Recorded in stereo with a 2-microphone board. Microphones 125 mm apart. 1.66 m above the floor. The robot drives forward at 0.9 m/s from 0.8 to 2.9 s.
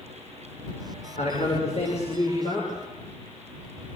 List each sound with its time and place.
1.2 s a man speaking: 65° left (ahead or behind), 6 m; by 2.9 s 50° left (ahead or behind), 7 m